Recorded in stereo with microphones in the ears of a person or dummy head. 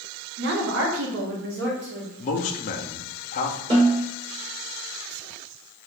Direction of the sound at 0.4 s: 55° right (ahead or behind).